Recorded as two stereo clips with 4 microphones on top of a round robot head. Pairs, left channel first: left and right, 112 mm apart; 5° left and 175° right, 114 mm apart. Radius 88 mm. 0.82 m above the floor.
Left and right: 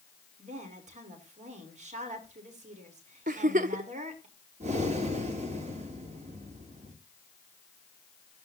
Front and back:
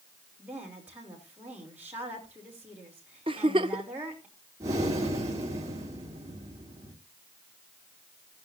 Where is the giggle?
115° right, 0.6 m.